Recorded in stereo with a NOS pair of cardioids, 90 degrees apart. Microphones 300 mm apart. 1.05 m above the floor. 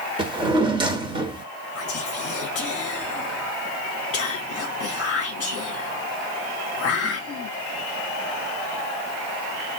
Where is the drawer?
15° right, 1.1 m.